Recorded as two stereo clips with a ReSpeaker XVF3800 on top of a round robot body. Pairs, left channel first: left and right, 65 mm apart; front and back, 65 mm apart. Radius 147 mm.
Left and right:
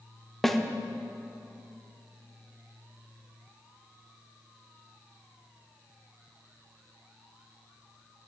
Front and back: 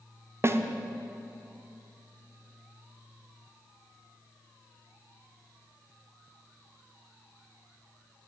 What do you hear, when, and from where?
0.4 s a snare drum: straight behind, 0.7 m